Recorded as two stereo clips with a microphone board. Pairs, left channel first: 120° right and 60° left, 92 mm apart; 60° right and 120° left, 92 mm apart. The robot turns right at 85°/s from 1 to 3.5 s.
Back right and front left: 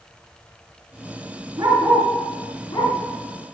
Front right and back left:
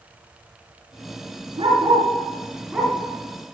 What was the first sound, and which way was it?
A dog barking, 100° left.